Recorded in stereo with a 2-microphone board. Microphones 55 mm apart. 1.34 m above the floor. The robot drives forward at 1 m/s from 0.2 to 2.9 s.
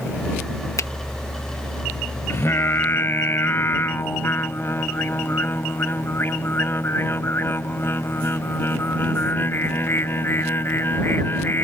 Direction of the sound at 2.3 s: 55° left (ahead or behind).